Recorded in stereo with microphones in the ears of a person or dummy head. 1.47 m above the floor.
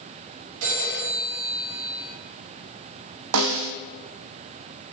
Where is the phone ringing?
80° right, 2.5 m.